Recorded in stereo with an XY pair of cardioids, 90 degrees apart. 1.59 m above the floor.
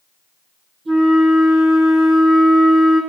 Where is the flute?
60° right, 1.5 m.